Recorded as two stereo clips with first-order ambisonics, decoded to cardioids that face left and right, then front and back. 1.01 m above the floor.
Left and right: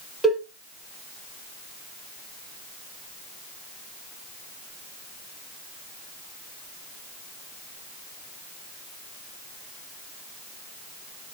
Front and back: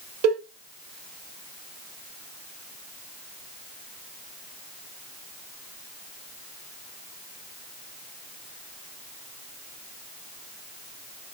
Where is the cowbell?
Straight behind, 1.1 m.